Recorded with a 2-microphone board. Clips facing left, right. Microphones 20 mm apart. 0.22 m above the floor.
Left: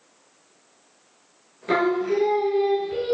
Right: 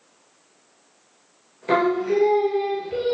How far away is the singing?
About 1.1 m.